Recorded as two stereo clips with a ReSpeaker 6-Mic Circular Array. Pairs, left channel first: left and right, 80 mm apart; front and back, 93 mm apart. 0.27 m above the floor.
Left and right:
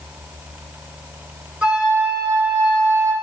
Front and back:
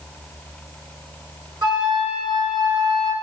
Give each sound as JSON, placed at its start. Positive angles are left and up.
{"t": 1.6, "sound": "a flute", "azimuth_deg": -165, "distance_m": 2.0}